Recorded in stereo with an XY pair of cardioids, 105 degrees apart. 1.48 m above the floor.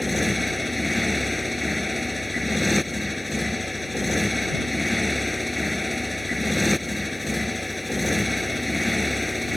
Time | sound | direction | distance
0.0 | a motorcycle | 5° left | ?